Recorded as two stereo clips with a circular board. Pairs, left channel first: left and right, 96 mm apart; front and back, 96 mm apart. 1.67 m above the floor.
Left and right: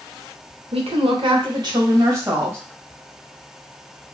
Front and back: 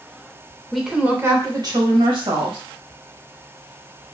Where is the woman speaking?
90° right, 0.8 m; by 2.6 s 155° right, 1.6 m.